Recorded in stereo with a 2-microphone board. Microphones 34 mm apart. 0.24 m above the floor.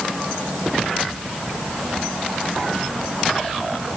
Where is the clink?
No clink in this recording.